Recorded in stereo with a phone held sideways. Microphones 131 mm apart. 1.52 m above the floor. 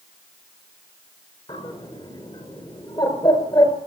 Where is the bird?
35° left (ahead or behind), 5.5 m.